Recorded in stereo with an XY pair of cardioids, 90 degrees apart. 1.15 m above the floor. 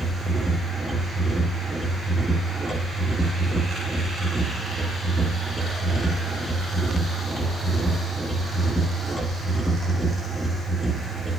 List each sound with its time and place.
0.0 s a machine running: 10° right, 8.5 m